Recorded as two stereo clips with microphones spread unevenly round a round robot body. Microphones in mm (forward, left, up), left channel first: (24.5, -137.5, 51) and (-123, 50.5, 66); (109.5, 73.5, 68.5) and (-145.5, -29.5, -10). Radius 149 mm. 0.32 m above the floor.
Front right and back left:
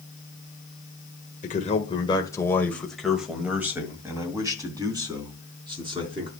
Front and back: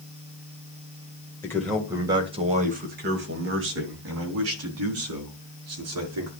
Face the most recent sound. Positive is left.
turn(degrees=-165)